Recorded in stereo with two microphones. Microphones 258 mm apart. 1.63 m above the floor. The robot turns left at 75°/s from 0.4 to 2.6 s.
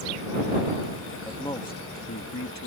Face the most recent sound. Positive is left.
turn(degrees=75)  # may be behind; listen again after turning